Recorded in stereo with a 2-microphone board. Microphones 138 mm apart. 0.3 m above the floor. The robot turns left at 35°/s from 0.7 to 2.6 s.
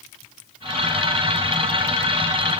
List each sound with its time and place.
Only background noise.